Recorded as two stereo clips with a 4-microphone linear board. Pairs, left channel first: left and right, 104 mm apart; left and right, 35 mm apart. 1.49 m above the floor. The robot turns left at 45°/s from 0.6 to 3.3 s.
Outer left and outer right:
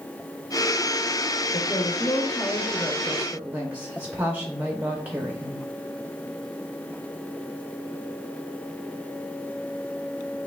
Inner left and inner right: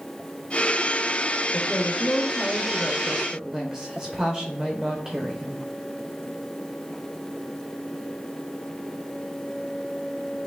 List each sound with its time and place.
1.5 s a woman speaking: 65° left, 0.7 m; by 5.6 s 15° right, 0.7 m